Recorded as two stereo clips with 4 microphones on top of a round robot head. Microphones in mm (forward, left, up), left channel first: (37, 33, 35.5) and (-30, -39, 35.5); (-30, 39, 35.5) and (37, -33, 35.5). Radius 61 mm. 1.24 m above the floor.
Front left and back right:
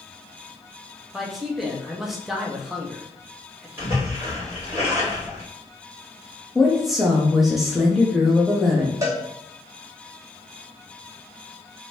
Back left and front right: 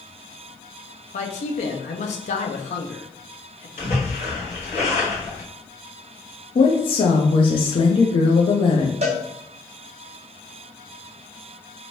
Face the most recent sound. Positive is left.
turn(degrees=-70)